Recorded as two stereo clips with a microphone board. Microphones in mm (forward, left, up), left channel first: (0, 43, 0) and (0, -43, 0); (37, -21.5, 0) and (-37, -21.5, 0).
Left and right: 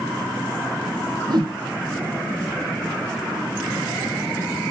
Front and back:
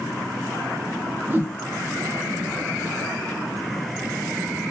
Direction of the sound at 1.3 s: 120° right.